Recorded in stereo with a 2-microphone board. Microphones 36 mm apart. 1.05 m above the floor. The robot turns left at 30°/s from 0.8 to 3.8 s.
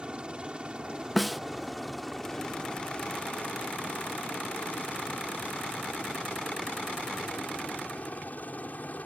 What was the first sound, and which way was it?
A helicopter, 30° right (ahead or behind).